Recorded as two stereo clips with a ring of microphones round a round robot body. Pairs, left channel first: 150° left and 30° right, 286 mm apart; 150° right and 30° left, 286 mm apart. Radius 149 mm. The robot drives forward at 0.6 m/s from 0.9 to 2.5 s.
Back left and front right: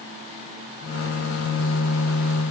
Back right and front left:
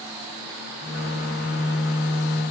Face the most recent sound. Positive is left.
No sound to turn to.